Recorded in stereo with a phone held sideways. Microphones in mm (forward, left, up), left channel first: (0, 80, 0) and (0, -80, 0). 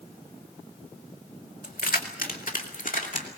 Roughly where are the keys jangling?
Left.